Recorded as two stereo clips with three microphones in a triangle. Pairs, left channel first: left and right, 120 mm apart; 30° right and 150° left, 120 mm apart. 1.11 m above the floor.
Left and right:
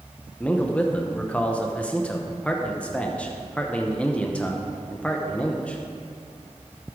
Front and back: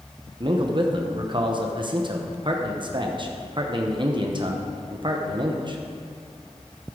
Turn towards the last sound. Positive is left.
turn(degrees=165)